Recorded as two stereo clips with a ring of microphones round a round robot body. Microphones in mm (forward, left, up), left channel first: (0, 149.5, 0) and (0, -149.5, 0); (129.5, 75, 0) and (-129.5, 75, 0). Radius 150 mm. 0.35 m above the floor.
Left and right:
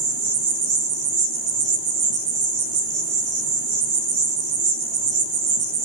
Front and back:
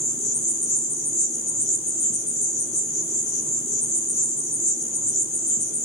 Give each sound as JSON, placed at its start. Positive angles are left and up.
{"t": 0.0, "sound": "an insect", "azimuth_deg": -70, "distance_m": 1.5}